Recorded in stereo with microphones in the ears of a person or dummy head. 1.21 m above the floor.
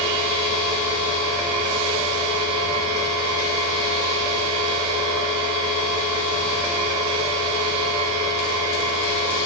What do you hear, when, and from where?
0.0 s a machine running: 65° right (ahead or behind), 0.9 m